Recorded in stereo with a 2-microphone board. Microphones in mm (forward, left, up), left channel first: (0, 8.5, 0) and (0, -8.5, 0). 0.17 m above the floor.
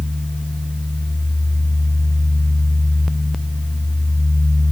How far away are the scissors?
I don't hear scissors.